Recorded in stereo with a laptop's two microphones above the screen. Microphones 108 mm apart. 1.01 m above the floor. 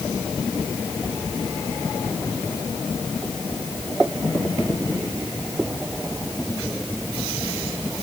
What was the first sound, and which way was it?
Only background noise.